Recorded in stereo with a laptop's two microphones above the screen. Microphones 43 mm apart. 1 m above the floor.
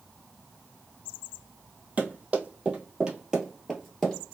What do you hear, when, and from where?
2.0 s running footsteps: 35° right (ahead or behind), 1.7 m; by 4.3 s 15° left (ahead or behind), 1.0 m